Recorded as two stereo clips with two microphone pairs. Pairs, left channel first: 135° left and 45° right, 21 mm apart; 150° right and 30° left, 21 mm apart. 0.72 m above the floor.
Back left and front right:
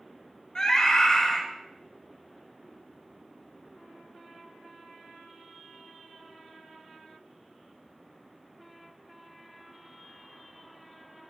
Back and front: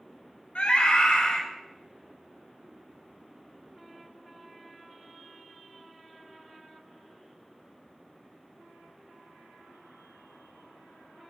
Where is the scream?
175° right, 2 m.